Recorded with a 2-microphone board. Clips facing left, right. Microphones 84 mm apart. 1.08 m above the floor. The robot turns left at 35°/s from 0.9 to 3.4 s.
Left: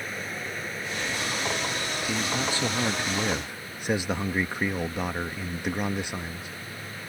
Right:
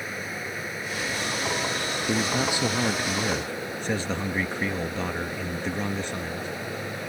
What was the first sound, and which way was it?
Running water, 5° right.